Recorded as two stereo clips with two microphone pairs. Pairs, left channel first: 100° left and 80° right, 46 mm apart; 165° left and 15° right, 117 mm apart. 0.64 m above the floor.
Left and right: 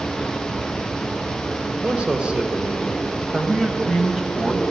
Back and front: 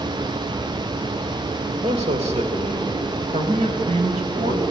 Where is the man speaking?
20° right, 2.5 m; by 4.6 s 5° right, 4 m.